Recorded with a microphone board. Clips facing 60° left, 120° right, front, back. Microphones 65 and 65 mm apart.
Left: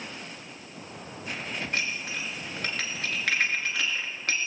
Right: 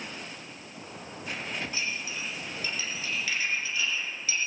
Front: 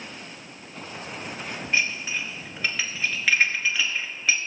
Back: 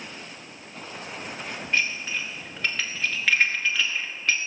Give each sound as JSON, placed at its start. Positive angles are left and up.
{"t": 1.7, "sound": "dishes clattering", "azimuth_deg": 85, "distance_m": 2.5}